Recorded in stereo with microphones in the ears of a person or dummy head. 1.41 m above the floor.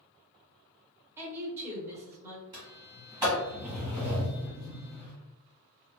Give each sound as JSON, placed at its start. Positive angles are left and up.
{"t": 1.2, "sound": "a woman speaking", "side_deg": -20, "distance_m": 1.1}
{"t": 2.5, "sound": "a sliding door", "side_deg": -10, "distance_m": 1.0}